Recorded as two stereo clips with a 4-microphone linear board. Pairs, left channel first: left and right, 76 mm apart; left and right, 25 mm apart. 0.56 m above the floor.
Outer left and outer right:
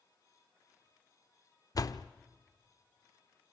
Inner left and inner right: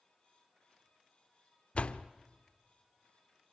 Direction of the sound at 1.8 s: 50° left (ahead or behind).